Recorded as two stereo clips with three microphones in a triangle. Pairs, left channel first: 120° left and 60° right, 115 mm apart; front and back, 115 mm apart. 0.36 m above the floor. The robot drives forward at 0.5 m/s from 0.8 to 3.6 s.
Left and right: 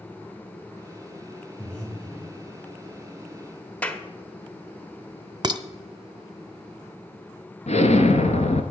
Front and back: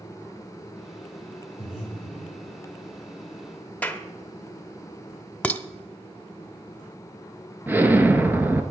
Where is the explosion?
105° left, 1.1 m.